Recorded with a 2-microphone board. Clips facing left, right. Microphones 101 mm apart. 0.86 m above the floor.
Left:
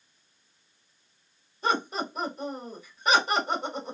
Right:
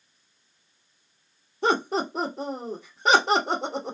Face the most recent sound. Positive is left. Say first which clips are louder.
# right 4 dB
turn(degrees=-70)  # may be behind; listen again after turning